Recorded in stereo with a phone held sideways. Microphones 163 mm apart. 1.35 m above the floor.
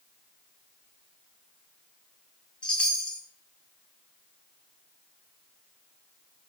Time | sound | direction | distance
2.6 | a chime | 5° left (ahead or behind) | 0.6 m